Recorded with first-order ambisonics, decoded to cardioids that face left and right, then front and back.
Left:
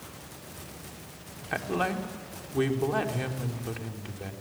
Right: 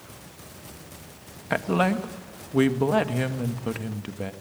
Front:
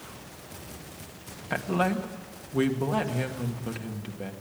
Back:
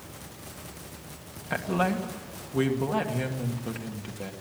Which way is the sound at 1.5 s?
85° right.